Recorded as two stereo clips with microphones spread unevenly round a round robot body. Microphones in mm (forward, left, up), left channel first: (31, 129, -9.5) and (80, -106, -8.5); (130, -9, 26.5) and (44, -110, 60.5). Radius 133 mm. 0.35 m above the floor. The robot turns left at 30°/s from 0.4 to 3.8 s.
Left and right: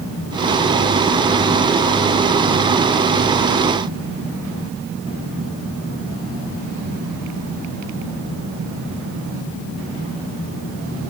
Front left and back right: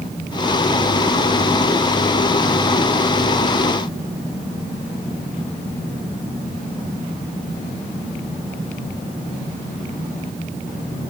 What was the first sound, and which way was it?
Only background noise.